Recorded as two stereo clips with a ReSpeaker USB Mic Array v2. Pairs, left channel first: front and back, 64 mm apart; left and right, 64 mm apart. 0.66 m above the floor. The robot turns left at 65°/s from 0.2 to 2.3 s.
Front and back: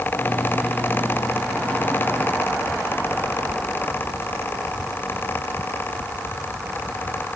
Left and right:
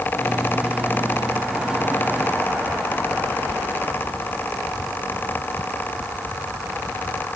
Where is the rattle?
No rattle in this recording.